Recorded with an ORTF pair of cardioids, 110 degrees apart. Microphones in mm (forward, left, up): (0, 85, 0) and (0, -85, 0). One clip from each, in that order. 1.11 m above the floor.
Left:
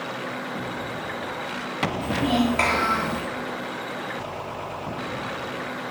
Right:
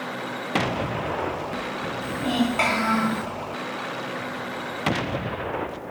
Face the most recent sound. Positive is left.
turn(degrees=10)